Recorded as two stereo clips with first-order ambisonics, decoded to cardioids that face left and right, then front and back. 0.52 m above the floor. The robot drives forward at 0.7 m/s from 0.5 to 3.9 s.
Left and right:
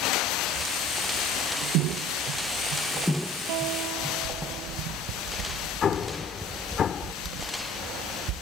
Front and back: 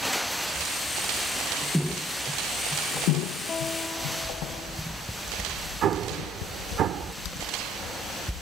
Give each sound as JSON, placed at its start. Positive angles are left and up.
{"t": 3.5, "sound": "a guitar", "azimuth_deg": -70}
{"t": 5.8, "sound": "an explosion", "azimuth_deg": 145}